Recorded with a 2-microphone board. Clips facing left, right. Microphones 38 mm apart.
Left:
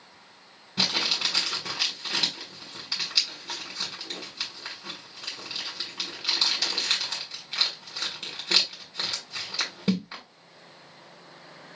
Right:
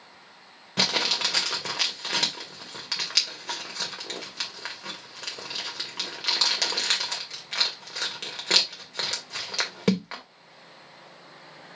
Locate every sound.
0.8 s crumpling: 85° right, 2 m